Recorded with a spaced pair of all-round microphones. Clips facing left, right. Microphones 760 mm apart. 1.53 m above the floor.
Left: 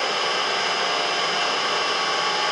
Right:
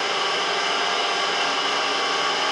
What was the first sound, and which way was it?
An engine running, 65° left (ahead or behind).